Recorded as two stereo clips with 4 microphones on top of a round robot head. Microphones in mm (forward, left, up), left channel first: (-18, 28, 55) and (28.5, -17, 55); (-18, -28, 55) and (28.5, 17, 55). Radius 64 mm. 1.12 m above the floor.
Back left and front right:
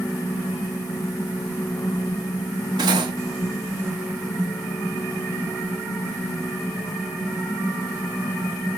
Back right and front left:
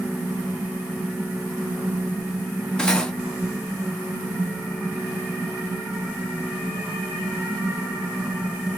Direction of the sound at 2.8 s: 60° right.